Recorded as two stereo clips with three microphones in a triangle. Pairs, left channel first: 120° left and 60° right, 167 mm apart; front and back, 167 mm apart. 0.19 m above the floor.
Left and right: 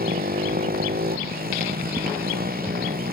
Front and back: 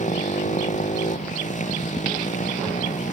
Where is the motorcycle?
40° right.